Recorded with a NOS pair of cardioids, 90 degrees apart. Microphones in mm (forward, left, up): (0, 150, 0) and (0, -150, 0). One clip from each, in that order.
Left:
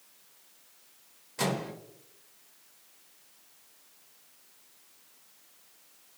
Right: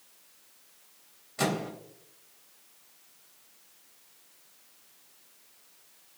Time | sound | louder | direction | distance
1.4 | a microwave | right 1 dB | straight ahead | 0.7 m